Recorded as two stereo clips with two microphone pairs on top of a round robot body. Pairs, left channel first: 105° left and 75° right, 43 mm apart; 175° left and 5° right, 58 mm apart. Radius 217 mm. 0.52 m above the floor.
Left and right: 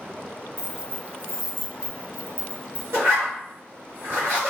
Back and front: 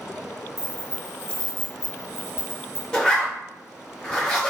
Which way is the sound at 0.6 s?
145° right.